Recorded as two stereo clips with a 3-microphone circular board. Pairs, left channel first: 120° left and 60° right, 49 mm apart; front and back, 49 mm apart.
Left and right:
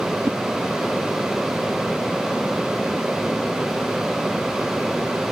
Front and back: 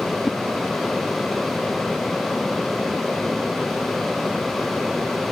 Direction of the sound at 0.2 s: 95° right.